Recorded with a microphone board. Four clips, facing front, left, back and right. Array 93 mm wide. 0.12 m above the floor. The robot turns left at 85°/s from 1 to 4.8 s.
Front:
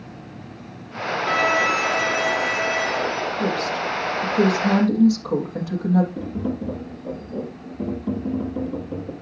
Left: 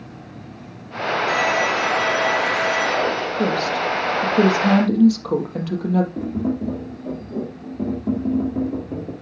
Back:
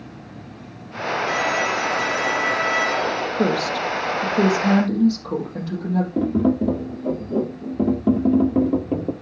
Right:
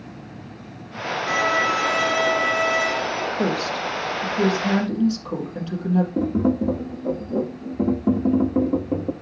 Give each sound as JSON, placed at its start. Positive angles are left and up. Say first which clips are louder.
{"t": 1.3, "sound": "a violin", "louder": "right 1 dB, front 4 dB", "azimuth_deg": -20, "distance_m": 3.5}
{"t": 3.4, "sound": "a woman speaking", "louder": "left 4 dB, back 5 dB", "azimuth_deg": -155, "distance_m": 4.0}
{"t": 6.2, "sound": "tapping", "louder": "right 3 dB, back 8 dB", "azimuth_deg": -155, "distance_m": 1.6}